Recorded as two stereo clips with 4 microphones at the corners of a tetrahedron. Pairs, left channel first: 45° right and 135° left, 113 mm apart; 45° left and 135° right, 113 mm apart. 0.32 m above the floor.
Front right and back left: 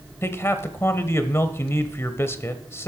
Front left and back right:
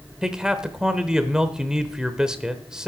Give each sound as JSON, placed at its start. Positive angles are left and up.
{"t": 0.2, "sound": "a man speaking", "azimuth_deg": -60, "distance_m": 0.9}